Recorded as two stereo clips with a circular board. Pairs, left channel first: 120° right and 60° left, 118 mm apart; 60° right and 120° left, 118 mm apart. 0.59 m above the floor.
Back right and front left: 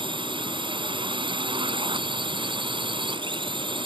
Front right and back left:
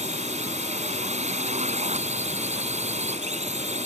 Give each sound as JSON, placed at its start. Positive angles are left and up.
{"t": 0.0, "sound": "a drone", "azimuth_deg": 105}